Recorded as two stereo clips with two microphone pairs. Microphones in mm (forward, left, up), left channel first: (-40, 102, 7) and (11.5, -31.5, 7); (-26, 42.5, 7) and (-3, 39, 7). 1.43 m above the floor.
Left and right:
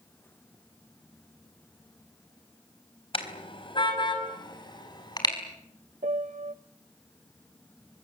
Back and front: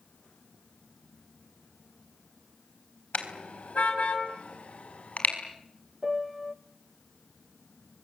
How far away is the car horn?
About 3.5 m.